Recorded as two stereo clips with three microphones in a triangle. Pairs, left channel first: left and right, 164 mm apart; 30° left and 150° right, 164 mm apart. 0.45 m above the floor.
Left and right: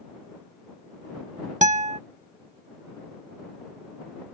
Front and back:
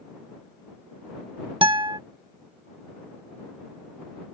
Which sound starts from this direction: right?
A guitar, at 1.6 s.